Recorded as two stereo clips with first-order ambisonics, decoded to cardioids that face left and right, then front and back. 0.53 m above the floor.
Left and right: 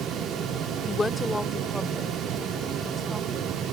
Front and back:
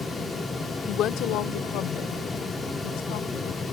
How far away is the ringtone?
I don't hear a ringtone.